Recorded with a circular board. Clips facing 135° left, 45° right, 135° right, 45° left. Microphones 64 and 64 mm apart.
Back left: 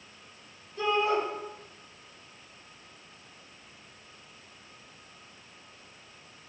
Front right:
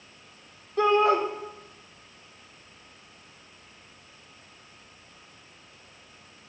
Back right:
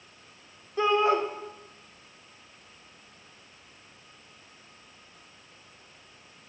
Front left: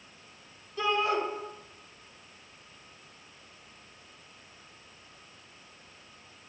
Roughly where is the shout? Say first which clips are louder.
Front right 6 dB, back right 5 dB; right.